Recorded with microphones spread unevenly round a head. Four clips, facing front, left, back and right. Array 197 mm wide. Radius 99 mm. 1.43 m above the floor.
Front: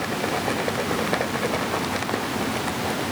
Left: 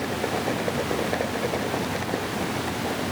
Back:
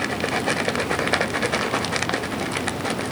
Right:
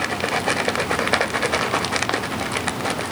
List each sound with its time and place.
Only background noise.